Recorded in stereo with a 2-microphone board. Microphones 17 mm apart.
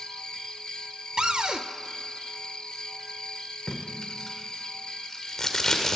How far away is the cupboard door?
About 0.9 m.